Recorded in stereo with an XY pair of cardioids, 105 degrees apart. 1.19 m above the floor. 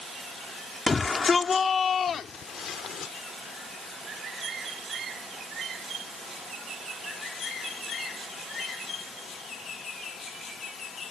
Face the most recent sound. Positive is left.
turn(degrees=65)